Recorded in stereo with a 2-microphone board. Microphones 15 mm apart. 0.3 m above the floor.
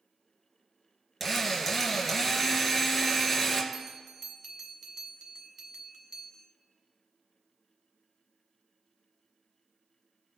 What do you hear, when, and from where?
1.2 s a drill: centre (ahead or behind), 2 m
3.7 s a bell: 40° right (ahead or behind), 1.7 m